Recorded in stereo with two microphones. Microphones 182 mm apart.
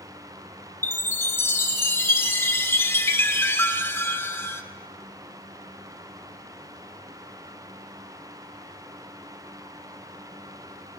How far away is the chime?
About 1.3 m.